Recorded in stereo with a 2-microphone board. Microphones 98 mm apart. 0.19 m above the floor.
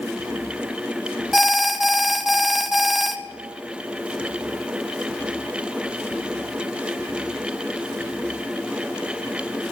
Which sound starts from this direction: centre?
An alarm, at 1.3 s.